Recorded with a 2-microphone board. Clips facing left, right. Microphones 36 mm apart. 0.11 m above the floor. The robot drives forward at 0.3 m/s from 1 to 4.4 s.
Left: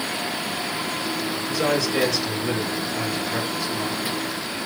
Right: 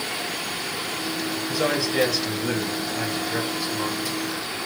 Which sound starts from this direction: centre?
A man speaking, at 1.5 s.